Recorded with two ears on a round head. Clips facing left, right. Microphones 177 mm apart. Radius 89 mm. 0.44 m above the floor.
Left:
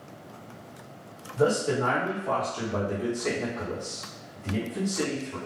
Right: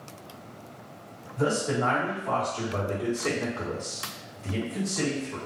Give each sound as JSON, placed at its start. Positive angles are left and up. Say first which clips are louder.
{"t": 1.4, "sound": "a man speaking", "louder": "left 2 dB", "side_deg": 50, "distance_m": 1.5}